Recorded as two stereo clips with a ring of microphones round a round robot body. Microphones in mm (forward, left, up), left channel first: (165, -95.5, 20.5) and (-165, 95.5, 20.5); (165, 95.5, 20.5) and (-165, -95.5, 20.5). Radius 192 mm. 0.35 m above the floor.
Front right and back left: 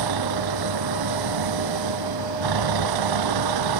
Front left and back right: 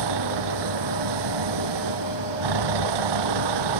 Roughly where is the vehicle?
Behind.